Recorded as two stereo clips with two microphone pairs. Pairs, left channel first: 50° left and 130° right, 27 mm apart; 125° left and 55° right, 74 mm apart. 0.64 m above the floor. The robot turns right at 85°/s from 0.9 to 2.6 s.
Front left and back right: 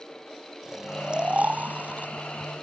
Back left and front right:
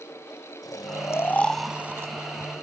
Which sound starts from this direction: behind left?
Snoring, at 0.6 s.